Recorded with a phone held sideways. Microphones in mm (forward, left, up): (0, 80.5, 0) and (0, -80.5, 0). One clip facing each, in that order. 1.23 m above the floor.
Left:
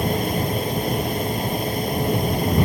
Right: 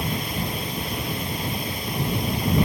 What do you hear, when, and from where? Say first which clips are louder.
0.0 s a fan: left 6 dB; 45° left (ahead or behind)